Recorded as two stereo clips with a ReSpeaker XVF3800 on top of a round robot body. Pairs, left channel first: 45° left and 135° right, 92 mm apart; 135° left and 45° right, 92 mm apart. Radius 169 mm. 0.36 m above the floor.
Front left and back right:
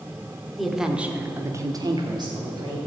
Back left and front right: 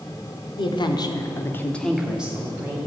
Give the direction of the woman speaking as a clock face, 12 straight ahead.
8 o'clock.